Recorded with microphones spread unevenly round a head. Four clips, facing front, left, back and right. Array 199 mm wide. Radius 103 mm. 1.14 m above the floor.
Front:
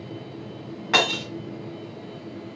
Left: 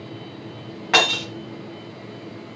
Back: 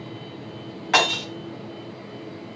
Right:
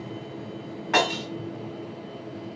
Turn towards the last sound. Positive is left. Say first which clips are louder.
# left 2 dB, back 2 dB
turn(degrees=70)